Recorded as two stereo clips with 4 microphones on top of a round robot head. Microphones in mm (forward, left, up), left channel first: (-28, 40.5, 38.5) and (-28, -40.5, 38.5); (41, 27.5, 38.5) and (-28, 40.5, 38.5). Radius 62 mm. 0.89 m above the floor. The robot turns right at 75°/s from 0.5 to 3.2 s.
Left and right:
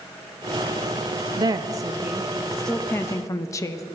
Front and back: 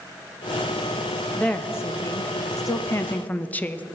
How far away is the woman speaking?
About 0.6 m.